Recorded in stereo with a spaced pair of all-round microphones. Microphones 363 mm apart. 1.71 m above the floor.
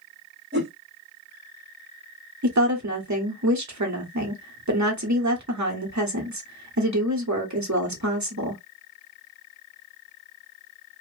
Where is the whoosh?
30° right (ahead or behind), 1.6 m.